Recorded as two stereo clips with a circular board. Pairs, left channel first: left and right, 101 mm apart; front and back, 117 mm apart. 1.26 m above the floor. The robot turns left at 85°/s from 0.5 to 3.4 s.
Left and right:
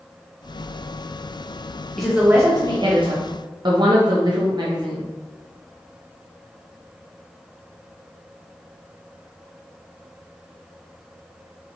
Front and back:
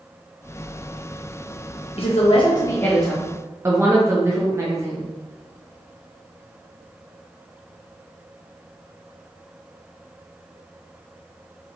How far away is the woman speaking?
About 0.7 m.